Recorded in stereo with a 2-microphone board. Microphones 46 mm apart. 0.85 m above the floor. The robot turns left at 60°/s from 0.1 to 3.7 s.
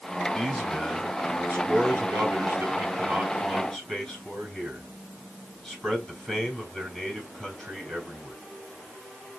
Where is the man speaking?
10° left, 6 m; by 8.3 s 170° left, 6 m.